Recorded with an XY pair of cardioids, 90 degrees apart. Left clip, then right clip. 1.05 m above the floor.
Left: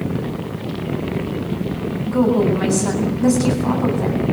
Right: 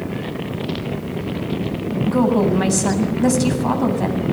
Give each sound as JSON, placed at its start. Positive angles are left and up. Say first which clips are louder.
{"t": 2.1, "sound": "a woman speaking", "louder": "even", "azimuth_deg": -35, "distance_m": 7.5}